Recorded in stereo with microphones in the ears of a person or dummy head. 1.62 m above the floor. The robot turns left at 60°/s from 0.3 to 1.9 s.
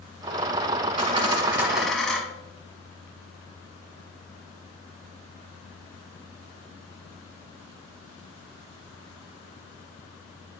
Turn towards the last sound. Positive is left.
turn(degrees=175)